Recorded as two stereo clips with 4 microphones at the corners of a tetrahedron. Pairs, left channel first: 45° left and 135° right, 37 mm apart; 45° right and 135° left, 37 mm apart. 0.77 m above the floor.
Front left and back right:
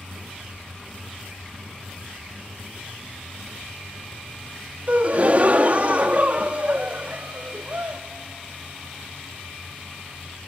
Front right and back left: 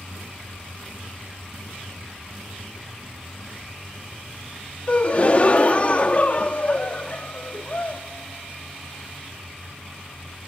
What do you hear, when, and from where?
4.9 s a gasp: 95° right, 0.7 m